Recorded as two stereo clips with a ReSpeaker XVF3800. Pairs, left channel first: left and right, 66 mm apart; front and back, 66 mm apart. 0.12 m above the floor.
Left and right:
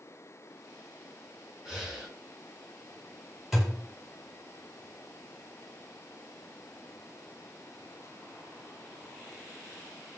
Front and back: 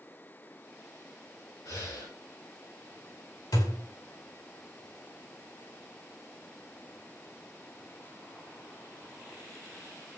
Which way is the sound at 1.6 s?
5° right.